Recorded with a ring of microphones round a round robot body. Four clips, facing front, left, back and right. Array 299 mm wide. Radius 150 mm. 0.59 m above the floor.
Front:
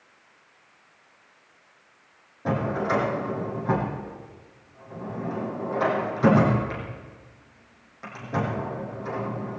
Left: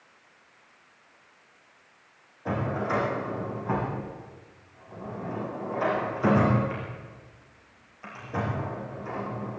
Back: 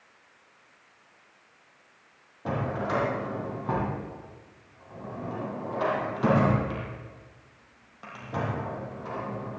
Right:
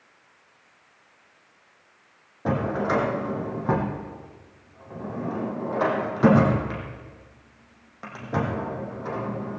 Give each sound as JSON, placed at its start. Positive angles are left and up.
{"t": 2.5, "sound": "a drawer", "azimuth_deg": -80, "distance_m": 6.0}